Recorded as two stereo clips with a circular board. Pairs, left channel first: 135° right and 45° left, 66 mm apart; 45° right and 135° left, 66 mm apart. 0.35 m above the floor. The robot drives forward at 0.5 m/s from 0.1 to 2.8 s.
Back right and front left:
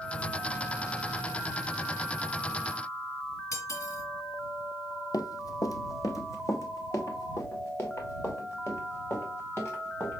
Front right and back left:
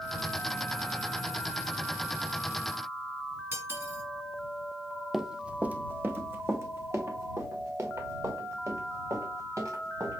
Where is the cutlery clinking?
175° right, 2.5 m.